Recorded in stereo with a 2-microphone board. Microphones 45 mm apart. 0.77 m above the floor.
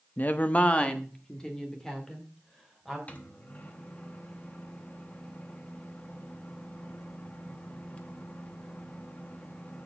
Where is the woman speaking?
45° left (ahead or behind), 0.6 m; by 3.0 s 10° left (ahead or behind), 3 m.